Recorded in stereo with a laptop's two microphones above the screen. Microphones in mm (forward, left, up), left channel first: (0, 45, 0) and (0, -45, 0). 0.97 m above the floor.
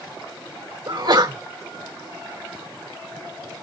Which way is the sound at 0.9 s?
55° right (ahead or behind).